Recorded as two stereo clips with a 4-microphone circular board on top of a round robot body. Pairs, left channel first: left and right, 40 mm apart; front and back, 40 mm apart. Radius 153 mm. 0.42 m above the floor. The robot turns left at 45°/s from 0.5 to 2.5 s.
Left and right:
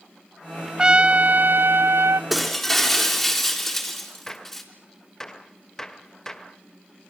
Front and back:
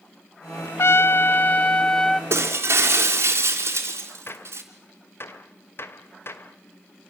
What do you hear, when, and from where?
0.8 s a trumpet: 15° right, 0.5 m; by 2.2 s 80° right, 0.5 m
2.3 s breaking glass: straight behind, 3.5 m; by 4.6 s 175° left, 3.5 m
4.3 s a gunshot: 15° left, 2 m